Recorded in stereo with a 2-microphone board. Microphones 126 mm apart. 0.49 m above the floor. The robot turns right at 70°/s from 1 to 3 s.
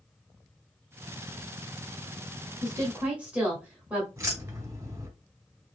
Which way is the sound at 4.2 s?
25° right (ahead or behind).